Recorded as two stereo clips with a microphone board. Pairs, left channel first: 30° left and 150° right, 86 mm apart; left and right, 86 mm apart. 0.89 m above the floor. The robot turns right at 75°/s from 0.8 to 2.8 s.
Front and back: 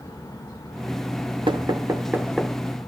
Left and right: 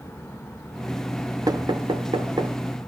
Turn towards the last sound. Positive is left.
turn(degrees=-35)